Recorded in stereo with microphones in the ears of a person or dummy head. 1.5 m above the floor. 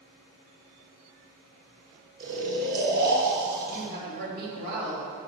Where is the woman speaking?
55° right (ahead or behind), 3.5 m.